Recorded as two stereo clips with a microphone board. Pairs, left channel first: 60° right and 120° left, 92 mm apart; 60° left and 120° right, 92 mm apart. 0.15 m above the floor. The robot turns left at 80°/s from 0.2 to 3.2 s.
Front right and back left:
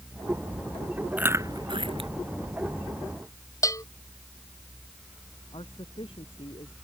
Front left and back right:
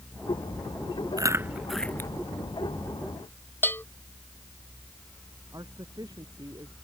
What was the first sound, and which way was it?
Chewing, 165° right.